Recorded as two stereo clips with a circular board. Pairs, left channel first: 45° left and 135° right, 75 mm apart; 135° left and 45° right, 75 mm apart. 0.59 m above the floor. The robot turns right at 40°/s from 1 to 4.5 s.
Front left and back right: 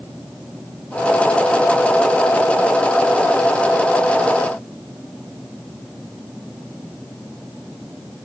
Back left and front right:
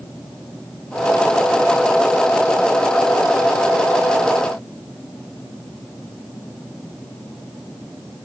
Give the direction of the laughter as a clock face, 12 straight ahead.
I don't hear laughter.